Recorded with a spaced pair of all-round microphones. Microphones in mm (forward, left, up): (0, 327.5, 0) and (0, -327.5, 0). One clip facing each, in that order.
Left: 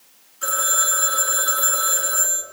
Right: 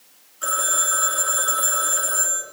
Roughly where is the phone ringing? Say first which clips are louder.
Left 1 dB; left.